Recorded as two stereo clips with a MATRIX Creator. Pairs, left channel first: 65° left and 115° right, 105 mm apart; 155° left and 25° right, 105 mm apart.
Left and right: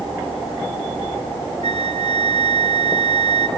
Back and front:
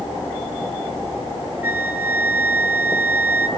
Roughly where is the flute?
Right.